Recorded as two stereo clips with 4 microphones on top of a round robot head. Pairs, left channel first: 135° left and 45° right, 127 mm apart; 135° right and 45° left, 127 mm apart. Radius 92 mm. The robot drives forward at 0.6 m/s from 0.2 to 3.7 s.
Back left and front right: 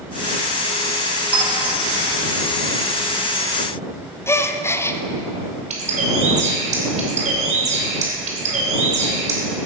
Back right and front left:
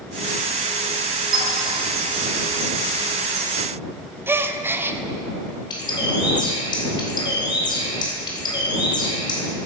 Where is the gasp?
95° left, 0.8 m.